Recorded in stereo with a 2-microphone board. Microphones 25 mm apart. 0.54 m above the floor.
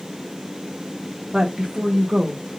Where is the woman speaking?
20° right (ahead or behind), 1.1 m; by 2.4 s 40° right (ahead or behind), 1.5 m.